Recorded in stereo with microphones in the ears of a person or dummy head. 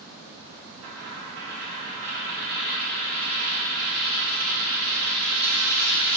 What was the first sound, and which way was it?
A dropped coin, 60° right (ahead or behind).